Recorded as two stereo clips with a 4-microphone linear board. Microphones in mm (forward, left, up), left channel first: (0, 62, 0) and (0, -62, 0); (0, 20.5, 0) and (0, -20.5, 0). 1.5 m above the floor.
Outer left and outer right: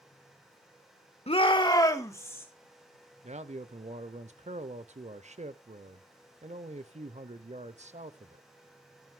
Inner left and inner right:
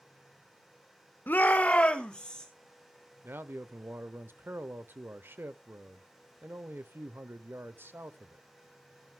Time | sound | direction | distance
1.3 | a shout | 55° left (ahead or behind) | 1.2 m
3.2 | a man speaking | 65° right (ahead or behind) | 0.7 m